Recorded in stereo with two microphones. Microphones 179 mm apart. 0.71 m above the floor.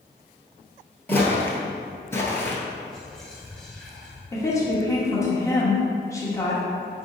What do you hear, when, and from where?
1.1 s footsteps: 10° left (ahead or behind), 0.9 m
2.9 s whispering: 5° left (ahead or behind), 1.1 m
4.3 s a woman speaking: 15° left (ahead or behind), 0.9 m